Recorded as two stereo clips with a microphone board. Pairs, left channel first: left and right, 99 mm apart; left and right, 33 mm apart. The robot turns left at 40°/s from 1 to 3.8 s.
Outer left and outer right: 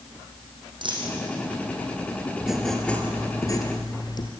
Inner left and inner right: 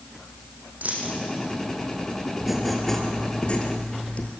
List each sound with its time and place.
0.8 s a dropped coin: 50° right (ahead or behind), 5.5 m; by 1.1 s 45° right (ahead or behind), 5.5 m
2.4 s writing: 175° right, 2.5 m; by 4.3 s 130° left, 2.5 m